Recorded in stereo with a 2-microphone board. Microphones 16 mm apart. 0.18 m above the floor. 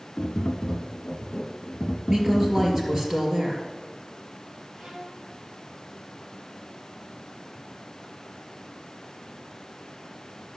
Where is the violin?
35° right (ahead or behind), 3.5 m.